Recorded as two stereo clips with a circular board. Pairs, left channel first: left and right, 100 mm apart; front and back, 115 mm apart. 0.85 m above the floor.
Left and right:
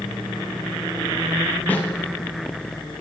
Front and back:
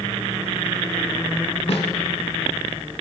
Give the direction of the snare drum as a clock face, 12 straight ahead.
11 o'clock.